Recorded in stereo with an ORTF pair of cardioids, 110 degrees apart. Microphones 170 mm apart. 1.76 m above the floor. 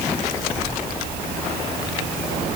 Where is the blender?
No blender in this recording.